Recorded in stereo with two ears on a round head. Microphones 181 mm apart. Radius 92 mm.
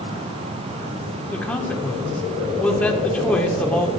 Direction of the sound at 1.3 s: 5° left (ahead or behind).